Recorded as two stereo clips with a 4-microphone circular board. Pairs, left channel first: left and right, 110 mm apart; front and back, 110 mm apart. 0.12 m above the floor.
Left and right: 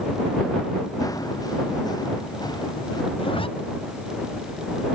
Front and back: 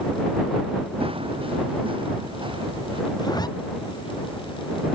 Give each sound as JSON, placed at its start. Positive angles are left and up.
{"t": 1.0, "sound": "running footsteps", "azimuth_deg": 145}
{"t": 3.2, "sound": "a zipper", "azimuth_deg": 50}